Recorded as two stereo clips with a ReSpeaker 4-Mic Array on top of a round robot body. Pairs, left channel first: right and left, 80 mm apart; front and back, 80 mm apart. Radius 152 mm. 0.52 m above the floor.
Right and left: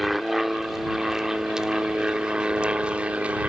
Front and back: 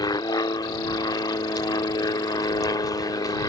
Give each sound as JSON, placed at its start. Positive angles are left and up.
{"t": 0.0, "sound": "an aircraft", "azimuth_deg": 0}